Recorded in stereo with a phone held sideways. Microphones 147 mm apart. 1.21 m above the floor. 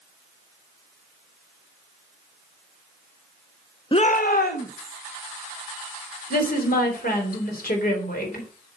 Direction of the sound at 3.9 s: 35° left (ahead or behind).